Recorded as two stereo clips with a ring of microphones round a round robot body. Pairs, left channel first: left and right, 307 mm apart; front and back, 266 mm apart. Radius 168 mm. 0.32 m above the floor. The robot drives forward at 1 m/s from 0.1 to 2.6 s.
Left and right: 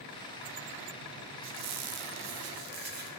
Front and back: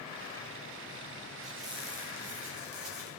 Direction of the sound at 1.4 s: 90° right.